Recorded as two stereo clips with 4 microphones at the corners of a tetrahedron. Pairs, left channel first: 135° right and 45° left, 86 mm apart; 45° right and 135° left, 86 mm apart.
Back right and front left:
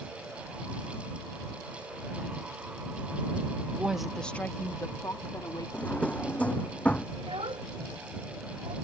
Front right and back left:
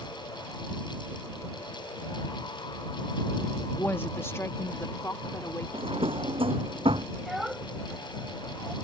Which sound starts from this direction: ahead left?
A child speaking, at 7.2 s.